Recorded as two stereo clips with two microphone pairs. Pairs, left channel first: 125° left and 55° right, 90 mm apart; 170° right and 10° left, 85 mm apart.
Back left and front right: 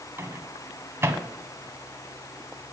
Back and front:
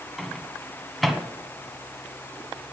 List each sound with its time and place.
0.2 s a microwave: 80° right, 1.1 m